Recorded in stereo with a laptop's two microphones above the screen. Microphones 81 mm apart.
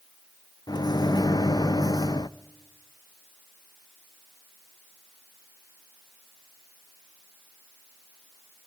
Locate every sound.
0.7 s a microwave: 60° left (ahead or behind), 0.5 m